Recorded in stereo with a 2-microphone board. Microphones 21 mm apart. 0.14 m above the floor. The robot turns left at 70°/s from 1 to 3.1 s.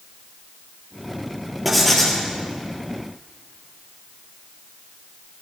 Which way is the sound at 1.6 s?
170° right.